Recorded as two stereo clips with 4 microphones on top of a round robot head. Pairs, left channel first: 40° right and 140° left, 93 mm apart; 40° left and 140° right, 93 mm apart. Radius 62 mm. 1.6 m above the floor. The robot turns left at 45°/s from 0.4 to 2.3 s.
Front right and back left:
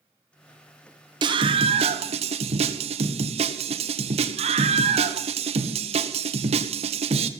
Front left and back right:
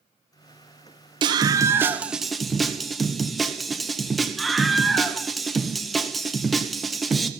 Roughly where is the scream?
Behind.